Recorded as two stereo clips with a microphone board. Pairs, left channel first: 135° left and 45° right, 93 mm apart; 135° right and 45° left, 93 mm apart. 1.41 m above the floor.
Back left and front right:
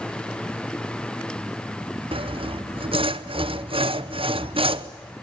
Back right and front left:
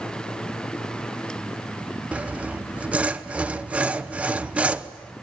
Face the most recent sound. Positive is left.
turn(degrees=-35)